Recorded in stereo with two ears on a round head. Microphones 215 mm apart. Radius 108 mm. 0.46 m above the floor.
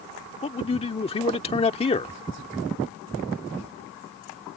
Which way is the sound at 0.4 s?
25° left (ahead or behind).